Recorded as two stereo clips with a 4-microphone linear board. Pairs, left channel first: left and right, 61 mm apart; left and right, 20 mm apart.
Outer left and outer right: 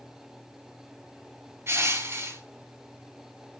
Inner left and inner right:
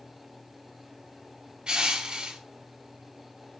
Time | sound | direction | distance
1.7 | crushing | 45° right (ahead or behind) | 1.2 m